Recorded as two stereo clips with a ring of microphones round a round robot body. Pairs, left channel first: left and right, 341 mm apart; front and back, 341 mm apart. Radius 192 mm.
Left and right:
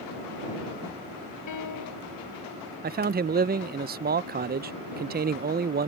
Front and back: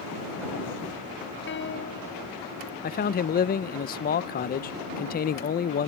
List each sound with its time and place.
1.5 s a piano: 55° left
2.8 s a man speaking: 45° right